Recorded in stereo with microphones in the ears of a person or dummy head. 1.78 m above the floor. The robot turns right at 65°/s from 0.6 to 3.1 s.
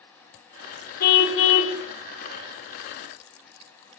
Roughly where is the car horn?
Ahead left.